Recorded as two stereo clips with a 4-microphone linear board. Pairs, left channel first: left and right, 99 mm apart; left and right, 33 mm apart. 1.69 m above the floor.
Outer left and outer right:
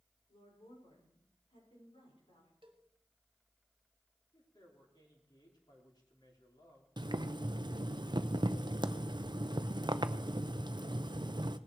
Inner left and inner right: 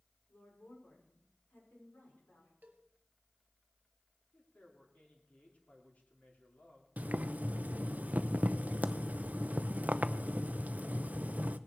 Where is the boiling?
50° right (ahead or behind), 0.6 m.